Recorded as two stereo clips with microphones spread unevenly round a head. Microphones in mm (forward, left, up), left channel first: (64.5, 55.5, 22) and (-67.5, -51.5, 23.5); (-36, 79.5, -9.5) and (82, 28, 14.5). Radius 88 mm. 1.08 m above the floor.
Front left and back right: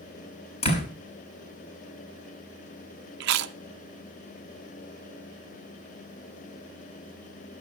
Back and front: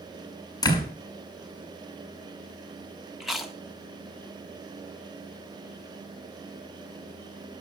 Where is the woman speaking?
I don't hear a woman speaking.